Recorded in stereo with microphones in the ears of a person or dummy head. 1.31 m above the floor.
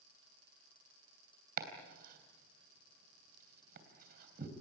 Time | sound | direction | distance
1.6 | chopping | 55° right (ahead or behind) | 3.5 m